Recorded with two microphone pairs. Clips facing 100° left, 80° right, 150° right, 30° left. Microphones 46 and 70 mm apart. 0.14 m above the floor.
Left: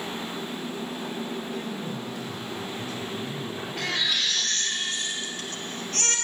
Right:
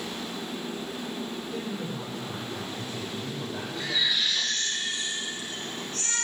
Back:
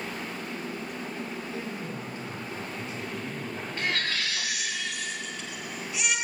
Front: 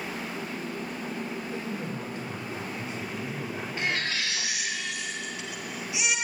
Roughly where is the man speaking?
Ahead right.